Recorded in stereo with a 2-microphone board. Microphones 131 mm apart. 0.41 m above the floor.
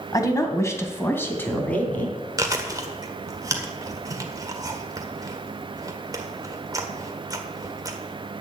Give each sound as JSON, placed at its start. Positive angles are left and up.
{"t": 0.1, "sound": "a woman speaking", "side_deg": 30, "distance_m": 2.0}
{"t": 2.4, "sound": "chewing", "side_deg": -25, "distance_m": 1.6}